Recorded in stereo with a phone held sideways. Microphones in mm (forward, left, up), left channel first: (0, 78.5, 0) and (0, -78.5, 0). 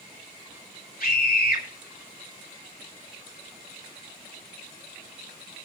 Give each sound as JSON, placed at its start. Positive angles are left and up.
{"t": 1.0, "sound": "a scream", "side_deg": 70, "distance_m": 2.5}